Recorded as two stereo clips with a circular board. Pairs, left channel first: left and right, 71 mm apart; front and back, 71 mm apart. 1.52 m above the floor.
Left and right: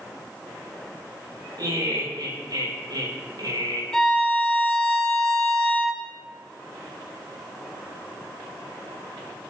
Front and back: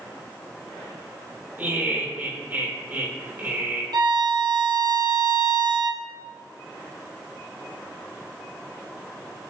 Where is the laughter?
115° right, 3.5 m.